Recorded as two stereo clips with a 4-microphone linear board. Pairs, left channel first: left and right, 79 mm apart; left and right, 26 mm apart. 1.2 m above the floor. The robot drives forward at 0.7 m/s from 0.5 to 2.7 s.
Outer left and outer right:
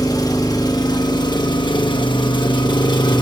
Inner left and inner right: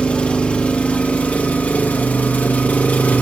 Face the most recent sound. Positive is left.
turn(degrees=70)  # may be behind; listen again after turning